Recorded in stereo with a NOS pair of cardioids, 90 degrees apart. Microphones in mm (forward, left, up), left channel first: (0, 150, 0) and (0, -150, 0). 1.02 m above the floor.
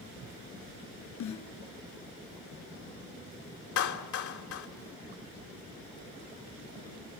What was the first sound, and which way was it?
A snare drum, 70° left.